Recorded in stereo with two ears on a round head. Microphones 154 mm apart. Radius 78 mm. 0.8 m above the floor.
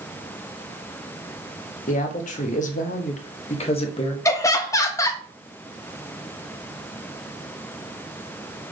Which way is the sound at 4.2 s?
20° left (ahead or behind).